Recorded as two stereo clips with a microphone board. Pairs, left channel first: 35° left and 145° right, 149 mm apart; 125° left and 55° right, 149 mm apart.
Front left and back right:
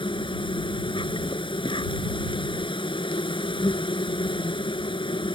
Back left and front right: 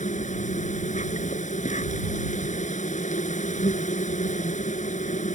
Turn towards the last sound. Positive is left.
turn(degrees=90)